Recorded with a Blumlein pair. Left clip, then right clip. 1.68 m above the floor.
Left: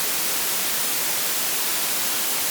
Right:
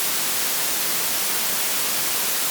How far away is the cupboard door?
I don't hear a cupboard door.